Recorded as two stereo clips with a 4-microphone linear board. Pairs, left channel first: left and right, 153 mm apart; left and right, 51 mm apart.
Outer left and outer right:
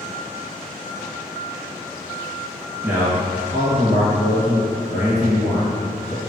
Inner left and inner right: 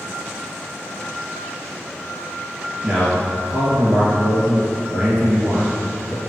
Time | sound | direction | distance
2.8 | a man speaking | 15° right (ahead or behind) | 1.2 m